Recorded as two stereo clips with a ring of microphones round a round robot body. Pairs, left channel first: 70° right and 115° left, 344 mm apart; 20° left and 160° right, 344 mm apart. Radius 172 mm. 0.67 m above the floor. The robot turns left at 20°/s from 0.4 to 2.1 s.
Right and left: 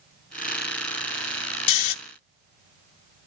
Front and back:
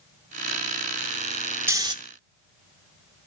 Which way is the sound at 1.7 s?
75° right.